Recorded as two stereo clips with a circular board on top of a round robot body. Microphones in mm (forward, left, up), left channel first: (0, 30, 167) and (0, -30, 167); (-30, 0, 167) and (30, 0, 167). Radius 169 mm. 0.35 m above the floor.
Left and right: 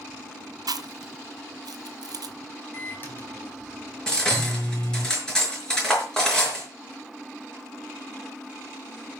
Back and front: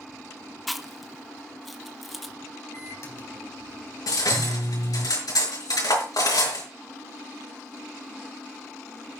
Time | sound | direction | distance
0.7 | chewing | 90° right | 1.1 m
2.7 | a microwave | 145° left | 4 m
4.1 | cutlery clinking | 170° left | 5.5 m